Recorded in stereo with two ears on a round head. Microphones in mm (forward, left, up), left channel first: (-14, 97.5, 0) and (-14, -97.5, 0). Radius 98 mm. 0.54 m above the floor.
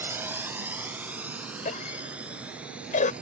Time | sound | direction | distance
0.0 | a drone | 10° right (ahead or behind) | ?
1.6 | a cough | 35° left (ahead or behind) | ?